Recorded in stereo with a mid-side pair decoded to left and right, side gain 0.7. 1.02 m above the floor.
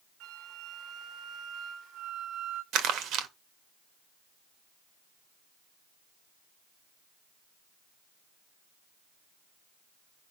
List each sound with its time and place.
0.2 s a flute: 55° right, 1.9 m
2.7 s crumpling: 55° right, 1.8 m